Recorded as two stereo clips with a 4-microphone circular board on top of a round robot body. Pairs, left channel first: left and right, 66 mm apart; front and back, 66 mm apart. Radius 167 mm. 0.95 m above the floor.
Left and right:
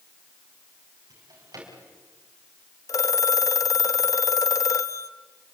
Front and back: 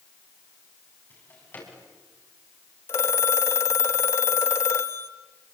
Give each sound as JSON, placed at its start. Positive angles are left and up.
{"t": 1.1, "sound": "a drawer", "azimuth_deg": -60, "distance_m": 6.0}
{"t": 2.9, "sound": "a phone ringing", "azimuth_deg": 50, "distance_m": 0.8}